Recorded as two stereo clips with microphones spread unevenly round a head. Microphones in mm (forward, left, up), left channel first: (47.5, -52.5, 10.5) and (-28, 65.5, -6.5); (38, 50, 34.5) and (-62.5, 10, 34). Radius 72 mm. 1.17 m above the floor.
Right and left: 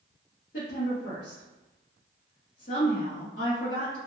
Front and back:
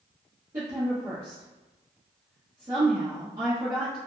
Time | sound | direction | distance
0.5 | a woman speaking | 95° right | 0.8 m